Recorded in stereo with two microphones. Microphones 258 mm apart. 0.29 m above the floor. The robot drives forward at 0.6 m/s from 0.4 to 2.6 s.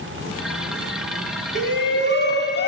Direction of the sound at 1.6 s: 50° left (ahead or behind).